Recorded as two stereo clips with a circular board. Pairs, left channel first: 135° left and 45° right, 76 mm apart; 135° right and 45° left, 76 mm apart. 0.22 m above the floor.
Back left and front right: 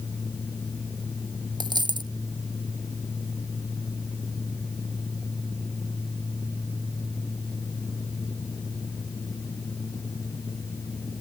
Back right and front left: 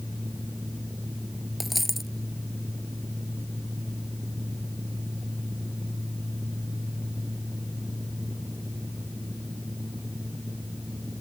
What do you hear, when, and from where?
1.6 s a dropped coin: 45° right